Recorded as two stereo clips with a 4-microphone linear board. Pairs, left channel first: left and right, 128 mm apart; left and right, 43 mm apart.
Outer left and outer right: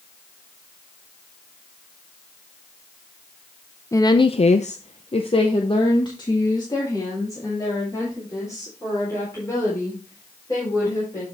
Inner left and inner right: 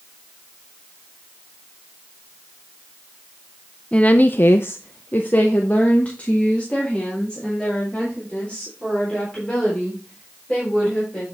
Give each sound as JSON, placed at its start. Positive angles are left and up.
{"t": 3.9, "sound": "a woman speaking", "side_deg": 25, "distance_m": 0.6}